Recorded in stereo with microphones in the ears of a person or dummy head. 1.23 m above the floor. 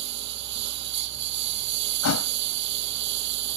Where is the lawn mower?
65° right (ahead or behind).